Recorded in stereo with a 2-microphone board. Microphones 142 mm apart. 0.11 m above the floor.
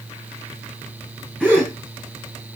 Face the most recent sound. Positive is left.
turn(degrees=5)  # may be behind; listen again after turning